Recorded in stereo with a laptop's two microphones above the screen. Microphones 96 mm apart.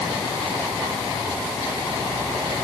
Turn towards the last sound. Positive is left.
No sound to turn to.